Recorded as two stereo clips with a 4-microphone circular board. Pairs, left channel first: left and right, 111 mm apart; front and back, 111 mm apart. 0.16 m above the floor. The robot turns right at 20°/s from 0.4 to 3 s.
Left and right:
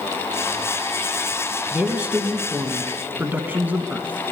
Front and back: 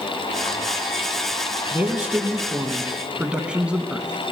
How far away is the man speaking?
About 1.0 m.